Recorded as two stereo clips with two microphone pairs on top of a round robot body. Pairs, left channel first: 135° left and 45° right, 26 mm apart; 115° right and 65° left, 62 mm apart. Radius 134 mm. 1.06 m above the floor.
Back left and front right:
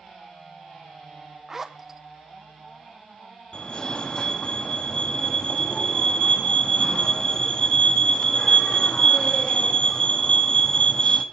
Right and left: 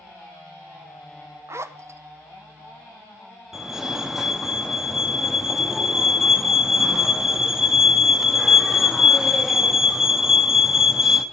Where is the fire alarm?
145° left, 1.1 m.